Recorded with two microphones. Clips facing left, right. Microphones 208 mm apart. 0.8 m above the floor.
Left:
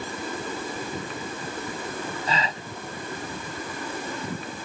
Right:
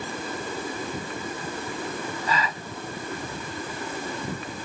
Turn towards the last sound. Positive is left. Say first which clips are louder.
# right 1 dB
turn(degrees=30)  # may be behind; listen again after turning